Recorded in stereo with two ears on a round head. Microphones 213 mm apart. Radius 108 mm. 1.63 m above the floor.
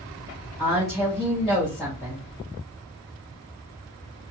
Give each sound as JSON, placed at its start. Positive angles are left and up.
{"t": 0.6, "sound": "a woman speaking", "side_deg": 0, "distance_m": 2.0}